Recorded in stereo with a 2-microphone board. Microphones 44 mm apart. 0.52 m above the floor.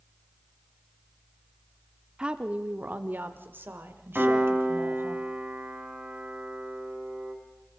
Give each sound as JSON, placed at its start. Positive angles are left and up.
{"t": 2.2, "sound": "a woman speaking", "side_deg": -20, "distance_m": 1.0}
{"t": 4.2, "sound": "a piano", "side_deg": -35, "distance_m": 4.0}